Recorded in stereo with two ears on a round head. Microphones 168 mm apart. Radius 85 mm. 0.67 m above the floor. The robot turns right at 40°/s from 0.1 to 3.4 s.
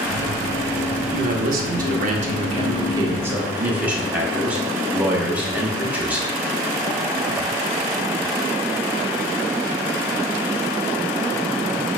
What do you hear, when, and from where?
1.1 s a man speaking: 105° right, 0.8 m; by 6.3 s 10° right, 0.8 m